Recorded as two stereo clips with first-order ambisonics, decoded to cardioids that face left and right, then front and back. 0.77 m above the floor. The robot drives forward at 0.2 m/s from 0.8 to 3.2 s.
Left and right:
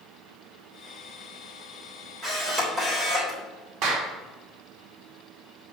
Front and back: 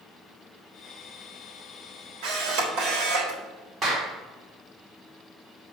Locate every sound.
2.2 s a camera shutter: 155° right, 3.5 m
3.8 s a clap: 120° right, 1.8 m